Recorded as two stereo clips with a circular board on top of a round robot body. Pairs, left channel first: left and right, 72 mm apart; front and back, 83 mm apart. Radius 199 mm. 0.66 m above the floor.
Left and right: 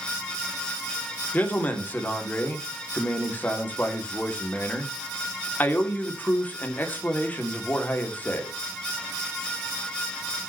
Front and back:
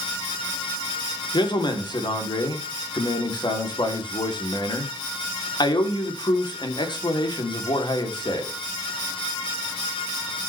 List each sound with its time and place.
1.3 s a man speaking: 25° left, 2.5 m